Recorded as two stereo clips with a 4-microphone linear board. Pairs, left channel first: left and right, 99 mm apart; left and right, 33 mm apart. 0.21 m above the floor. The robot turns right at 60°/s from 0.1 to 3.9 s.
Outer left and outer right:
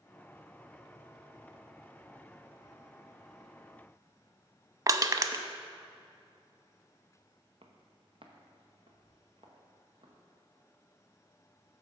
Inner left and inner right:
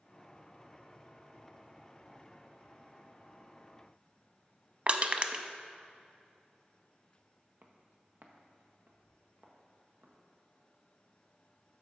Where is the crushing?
40° right (ahead or behind), 0.5 m.